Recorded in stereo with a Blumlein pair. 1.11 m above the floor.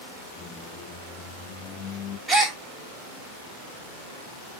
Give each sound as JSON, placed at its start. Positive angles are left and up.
{"t": 0.4, "sound": "a squeak", "azimuth_deg": 25, "distance_m": 0.7}
{"t": 2.3, "sound": "a gasp", "azimuth_deg": -5, "distance_m": 1.0}